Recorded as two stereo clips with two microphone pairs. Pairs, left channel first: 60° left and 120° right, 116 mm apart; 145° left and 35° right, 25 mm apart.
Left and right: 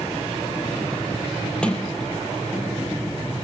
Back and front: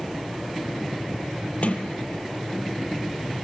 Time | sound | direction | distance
1.6 | a sliding door | 140° left | 3 m